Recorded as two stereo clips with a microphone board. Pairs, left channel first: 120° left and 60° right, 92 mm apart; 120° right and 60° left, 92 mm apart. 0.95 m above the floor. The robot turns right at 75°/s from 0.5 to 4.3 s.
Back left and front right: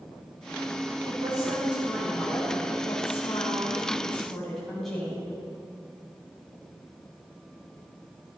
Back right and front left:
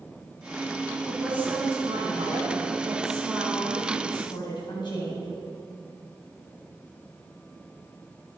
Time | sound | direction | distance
1.1 | a woman speaking | 35° right | 5.5 m